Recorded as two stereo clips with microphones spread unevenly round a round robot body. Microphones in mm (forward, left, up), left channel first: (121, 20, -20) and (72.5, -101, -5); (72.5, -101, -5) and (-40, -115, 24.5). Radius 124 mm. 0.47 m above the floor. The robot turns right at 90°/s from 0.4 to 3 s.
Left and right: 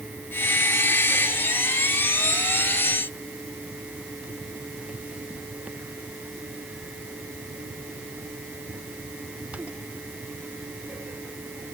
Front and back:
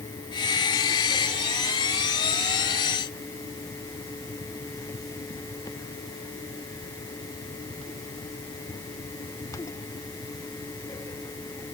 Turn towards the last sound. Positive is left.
No sound to turn to.